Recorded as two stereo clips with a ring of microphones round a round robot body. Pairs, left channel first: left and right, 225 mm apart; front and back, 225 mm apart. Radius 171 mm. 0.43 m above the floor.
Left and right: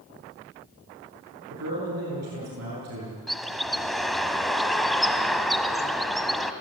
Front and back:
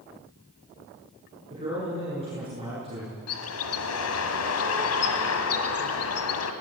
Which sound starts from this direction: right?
A man speaking, at 1.5 s.